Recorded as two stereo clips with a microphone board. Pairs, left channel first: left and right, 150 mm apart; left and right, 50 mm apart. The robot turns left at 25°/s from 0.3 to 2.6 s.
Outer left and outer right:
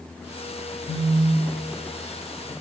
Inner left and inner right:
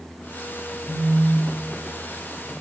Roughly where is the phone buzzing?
Left.